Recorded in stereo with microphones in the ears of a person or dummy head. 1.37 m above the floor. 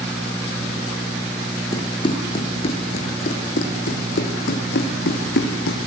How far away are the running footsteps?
About 3 m.